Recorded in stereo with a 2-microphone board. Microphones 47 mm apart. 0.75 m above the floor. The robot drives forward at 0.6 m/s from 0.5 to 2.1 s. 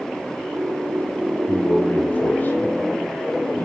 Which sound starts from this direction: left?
A man speaking, at 1.5 s.